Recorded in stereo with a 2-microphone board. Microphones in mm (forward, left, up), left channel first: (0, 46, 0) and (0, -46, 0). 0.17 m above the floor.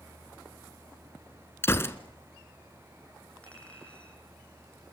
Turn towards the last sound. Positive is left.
turn(degrees=15)  # may be behind; listen again after turning